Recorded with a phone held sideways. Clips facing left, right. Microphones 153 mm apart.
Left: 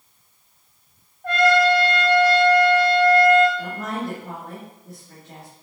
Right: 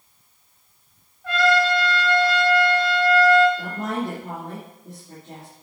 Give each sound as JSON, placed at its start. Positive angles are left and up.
{"t": 1.2, "sound": "a trumpet", "side_deg": 45, "distance_m": 1.9}
{"t": 3.6, "sound": "a woman speaking", "side_deg": -30, "distance_m": 2.5}